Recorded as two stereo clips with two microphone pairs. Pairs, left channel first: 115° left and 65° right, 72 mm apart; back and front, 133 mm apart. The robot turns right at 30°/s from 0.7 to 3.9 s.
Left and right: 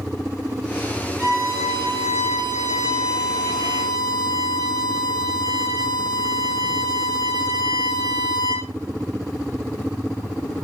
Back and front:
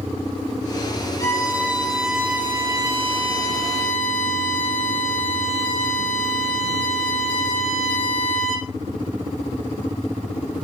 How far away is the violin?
About 7.5 m.